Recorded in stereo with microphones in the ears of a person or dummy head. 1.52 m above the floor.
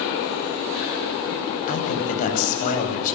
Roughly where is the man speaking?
Left.